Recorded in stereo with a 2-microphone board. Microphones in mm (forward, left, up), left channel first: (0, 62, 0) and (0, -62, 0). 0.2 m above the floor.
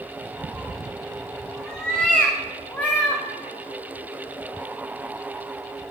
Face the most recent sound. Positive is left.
turn(degrees=10)  # may be behind; listen again after turning